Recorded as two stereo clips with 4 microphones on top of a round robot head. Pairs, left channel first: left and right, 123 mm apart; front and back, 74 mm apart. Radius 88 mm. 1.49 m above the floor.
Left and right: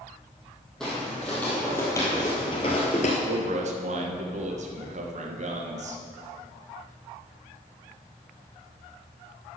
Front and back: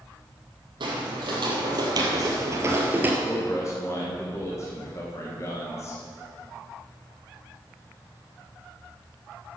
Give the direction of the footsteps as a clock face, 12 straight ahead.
6 o'clock.